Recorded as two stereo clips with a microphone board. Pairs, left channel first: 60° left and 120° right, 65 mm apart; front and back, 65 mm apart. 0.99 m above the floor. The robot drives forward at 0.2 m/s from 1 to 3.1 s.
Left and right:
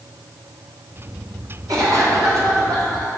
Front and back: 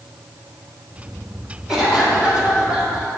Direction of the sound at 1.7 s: 100° right.